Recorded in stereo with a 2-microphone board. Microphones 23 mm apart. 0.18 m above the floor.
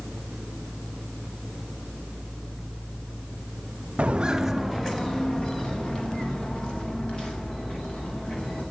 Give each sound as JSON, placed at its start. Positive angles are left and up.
{"t": 4.0, "sound": "footsteps", "side_deg": -50, "distance_m": 0.8}